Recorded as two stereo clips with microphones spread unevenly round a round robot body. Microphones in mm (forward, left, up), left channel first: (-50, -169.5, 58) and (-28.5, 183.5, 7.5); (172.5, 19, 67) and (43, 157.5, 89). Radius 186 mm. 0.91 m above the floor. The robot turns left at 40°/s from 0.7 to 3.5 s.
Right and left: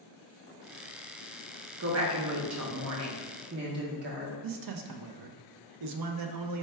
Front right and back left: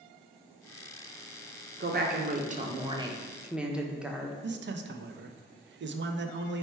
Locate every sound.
1.8 s a woman speaking: 110° left, 0.8 m; by 4.3 s 45° left, 0.8 m
4.4 s a man speaking: 100° left, 0.5 m